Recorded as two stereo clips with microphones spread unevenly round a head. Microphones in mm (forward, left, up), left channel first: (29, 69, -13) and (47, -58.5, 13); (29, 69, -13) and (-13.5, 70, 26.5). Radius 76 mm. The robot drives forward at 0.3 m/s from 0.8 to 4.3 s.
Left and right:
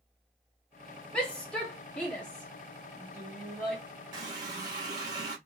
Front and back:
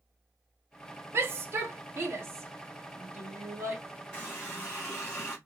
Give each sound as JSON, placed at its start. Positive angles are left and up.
{"t": 1.1, "sound": "a shout", "azimuth_deg": -175, "distance_m": 0.6}
{"t": 4.1, "sound": "a running tap", "azimuth_deg": -125, "distance_m": 1.2}